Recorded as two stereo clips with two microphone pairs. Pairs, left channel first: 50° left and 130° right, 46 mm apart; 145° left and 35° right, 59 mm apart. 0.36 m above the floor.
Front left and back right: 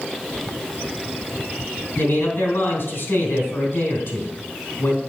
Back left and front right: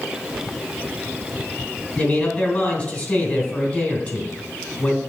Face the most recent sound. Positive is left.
turn(degrees=70)